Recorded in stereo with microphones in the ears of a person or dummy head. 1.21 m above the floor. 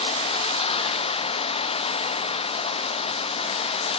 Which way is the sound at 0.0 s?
35° left (ahead or behind).